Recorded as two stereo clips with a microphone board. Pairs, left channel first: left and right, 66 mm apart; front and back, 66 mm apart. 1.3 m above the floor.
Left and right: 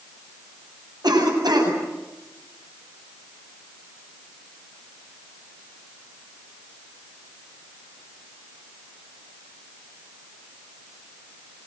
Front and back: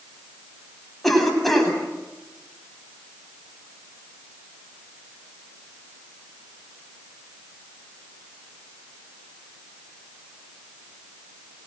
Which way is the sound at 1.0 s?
90° right.